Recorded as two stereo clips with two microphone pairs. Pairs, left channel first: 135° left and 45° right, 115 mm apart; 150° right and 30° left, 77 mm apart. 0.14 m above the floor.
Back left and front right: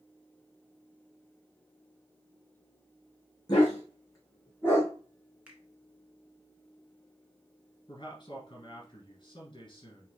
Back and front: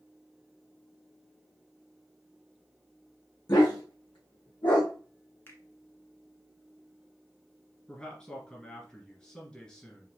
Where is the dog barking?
175° right, 3 m; by 4.9 s 150° right, 3 m.